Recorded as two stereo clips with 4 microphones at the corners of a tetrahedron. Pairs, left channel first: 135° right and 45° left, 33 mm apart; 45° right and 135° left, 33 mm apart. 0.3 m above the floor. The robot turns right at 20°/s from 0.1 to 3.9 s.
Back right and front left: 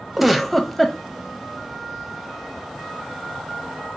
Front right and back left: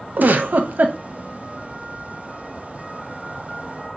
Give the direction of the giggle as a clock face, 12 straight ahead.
8 o'clock.